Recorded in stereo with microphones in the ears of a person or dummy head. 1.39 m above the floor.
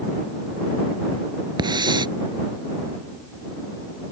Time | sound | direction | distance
1.6 | a hiss | 20° right (ahead or behind) | ?